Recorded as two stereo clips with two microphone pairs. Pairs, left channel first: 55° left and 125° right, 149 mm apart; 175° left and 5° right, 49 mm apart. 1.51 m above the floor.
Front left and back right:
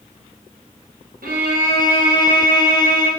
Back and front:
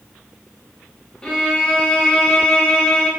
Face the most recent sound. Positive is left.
turn(degrees=-110)